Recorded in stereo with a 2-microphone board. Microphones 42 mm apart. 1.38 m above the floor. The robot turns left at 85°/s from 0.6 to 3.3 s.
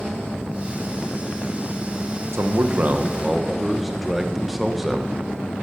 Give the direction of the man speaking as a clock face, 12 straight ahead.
3 o'clock.